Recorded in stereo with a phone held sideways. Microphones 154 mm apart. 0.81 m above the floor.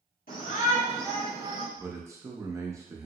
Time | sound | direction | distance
0.3 | a shout | 60° left (ahead or behind) | 1.6 m
1.8 | a man speaking | 20° right (ahead or behind) | 0.6 m